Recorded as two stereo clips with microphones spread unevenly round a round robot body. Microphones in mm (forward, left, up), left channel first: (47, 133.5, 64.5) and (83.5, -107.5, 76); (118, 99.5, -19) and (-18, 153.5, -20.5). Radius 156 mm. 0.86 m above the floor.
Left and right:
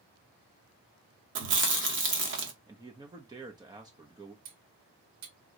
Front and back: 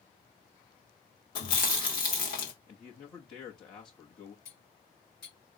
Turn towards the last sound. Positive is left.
turn(degrees=-70)